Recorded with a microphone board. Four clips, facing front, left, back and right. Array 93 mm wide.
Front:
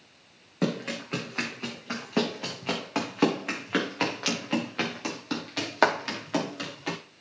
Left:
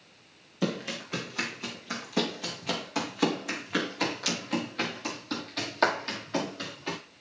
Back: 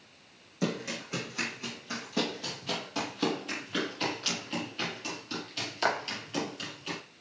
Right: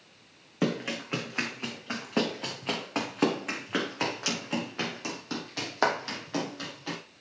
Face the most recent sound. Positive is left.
turn(degrees=-5)